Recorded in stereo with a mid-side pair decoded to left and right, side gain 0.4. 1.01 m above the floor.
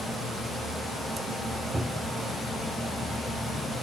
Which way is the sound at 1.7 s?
5° left.